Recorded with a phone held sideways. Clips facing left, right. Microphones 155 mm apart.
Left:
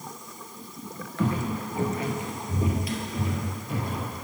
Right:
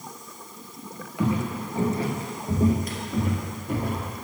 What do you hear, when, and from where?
1.2 s footsteps: 10° right (ahead or behind), 1.7 m; by 4.2 s 60° right (ahead or behind), 3 m